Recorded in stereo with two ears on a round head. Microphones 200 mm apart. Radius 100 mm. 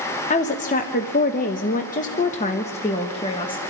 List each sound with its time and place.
0.3 s a woman speaking: 30° left (ahead or behind), 1.1 m; by 3.6 s 20° left (ahead or behind), 1.5 m